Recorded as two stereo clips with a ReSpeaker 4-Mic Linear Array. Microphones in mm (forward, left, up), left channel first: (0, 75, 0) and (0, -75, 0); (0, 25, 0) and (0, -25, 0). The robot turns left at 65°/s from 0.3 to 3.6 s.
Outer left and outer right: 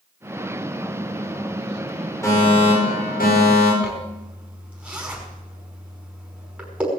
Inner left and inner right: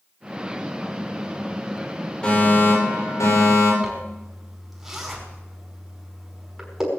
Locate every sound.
2.2 s a fire alarm: 160° left, 9 m; by 3.7 s 70° left, 9 m
3.8 s a zipper: 10° right (ahead or behind), 5 m